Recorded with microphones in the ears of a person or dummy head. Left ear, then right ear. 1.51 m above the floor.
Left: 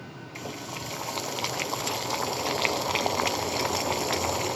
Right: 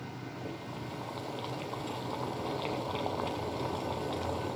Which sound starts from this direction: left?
Boiling, at 0.3 s.